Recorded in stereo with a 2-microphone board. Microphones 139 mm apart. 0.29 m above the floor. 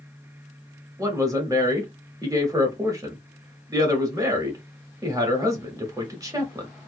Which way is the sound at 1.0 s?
25° right (ahead or behind).